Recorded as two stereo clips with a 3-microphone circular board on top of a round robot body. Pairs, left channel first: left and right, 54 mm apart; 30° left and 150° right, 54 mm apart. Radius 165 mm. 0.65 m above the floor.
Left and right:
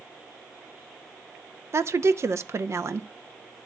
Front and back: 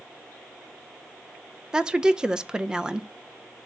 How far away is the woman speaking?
About 0.8 m.